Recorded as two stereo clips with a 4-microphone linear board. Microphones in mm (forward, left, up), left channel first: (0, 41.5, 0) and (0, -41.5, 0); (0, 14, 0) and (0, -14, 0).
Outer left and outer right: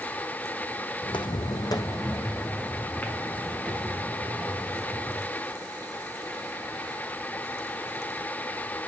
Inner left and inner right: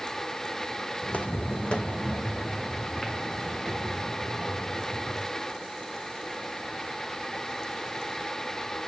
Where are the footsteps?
75° left (ahead or behind), 0.8 m; by 5.3 s centre (ahead or behind), 4 m.